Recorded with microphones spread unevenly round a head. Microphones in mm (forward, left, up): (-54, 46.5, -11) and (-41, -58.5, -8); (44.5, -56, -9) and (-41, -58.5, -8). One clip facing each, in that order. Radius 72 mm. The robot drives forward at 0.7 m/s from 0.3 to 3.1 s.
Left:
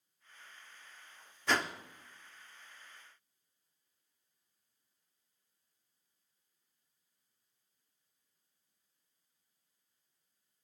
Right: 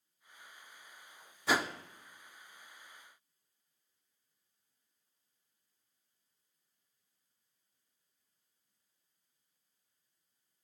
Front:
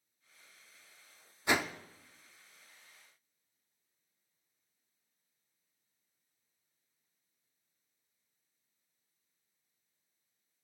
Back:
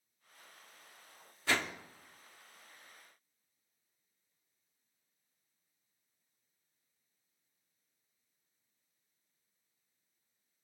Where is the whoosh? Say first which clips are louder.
Right 1 dB, front 3 dB; 25° right, 0.5 m; by 1.7 s 105° right, 0.5 m.